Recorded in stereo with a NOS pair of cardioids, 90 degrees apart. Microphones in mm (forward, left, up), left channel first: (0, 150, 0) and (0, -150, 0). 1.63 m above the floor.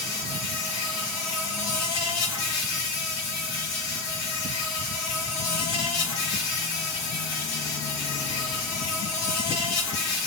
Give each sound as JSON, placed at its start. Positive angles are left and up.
{"t": 0.0, "sound": "an insect", "azimuth_deg": 60, "distance_m": 1.0}